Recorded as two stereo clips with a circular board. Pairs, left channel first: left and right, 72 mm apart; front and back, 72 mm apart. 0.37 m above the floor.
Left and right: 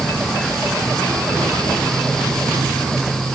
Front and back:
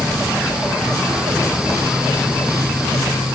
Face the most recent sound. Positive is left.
No sound to turn to.